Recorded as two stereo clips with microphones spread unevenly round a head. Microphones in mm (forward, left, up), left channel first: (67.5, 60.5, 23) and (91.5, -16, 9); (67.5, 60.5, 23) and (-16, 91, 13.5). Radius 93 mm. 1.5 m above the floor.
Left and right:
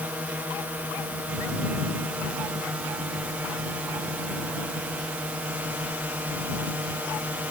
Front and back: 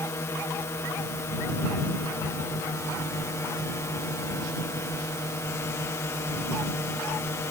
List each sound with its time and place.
0.0 s a drone: 45° right